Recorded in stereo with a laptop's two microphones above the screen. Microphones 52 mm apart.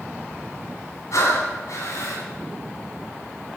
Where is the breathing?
75° left (ahead or behind), 2.5 m.